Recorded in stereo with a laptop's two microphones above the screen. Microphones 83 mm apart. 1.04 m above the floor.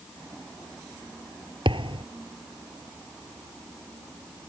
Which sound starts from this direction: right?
A thud, at 1.6 s.